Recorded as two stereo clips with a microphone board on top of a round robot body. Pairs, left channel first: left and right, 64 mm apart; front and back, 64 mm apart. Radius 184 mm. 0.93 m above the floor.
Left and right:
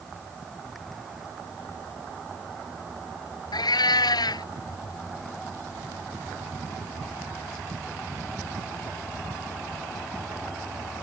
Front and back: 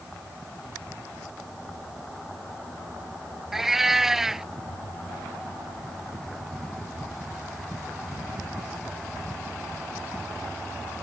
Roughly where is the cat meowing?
Left.